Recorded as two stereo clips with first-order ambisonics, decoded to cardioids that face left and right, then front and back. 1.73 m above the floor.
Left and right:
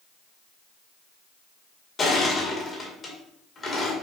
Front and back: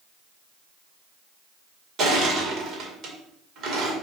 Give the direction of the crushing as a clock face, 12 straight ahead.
7 o'clock.